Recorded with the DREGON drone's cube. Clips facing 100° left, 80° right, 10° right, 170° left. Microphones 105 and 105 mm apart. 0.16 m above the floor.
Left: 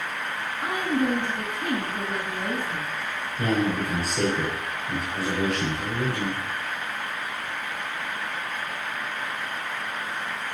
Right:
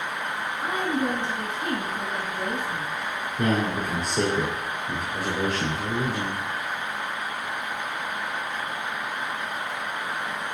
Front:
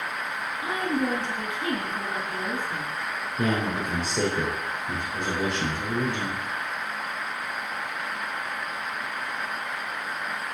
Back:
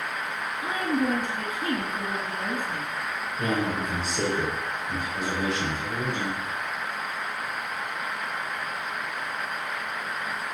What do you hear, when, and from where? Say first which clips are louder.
0.6 s a woman speaking: left 2 dB, back 1 dB; 50° left, 3.5 m
3.4 s a man speaking: even, front 1 dB; 20° right, 4.5 m